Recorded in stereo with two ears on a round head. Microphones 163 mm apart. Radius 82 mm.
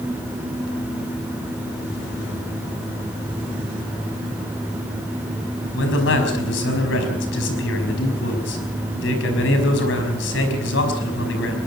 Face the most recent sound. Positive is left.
turn(degrees=75)  # may be behind; listen again after turning